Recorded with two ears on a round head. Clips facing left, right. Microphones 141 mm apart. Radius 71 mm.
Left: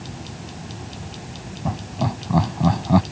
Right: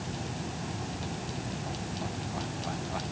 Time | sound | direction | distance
1.6 | laughter | 80° left | ?